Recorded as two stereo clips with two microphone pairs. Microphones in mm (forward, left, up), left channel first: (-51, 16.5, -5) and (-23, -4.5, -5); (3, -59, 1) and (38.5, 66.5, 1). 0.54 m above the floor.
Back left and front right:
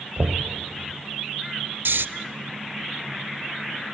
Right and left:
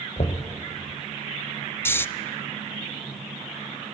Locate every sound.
0.2 s knocking: 75° right, 1.5 m
1.9 s snoring: 30° right, 0.5 m